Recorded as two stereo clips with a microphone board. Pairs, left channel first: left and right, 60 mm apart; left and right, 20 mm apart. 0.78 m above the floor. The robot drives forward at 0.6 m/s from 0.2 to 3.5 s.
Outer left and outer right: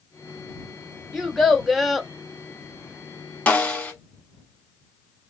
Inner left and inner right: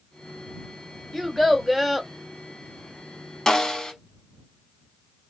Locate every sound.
1.1 s a child speaking: centre (ahead or behind), 1.2 m
3.5 s a snare drum: 20° left (ahead or behind), 1.0 m